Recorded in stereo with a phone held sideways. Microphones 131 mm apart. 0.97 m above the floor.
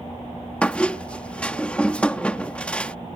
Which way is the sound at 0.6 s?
10° left (ahead or behind).